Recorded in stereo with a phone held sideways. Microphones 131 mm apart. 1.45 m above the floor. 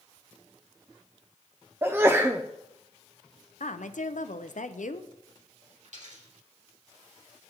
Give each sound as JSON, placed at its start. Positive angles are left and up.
{"t": 1.8, "sound": "a sneeze", "side_deg": -20, "distance_m": 0.5}
{"t": 3.6, "sound": "a woman speaking", "side_deg": 75, "distance_m": 0.6}
{"t": 5.8, "sound": "a dropped coin", "side_deg": -70, "distance_m": 4.0}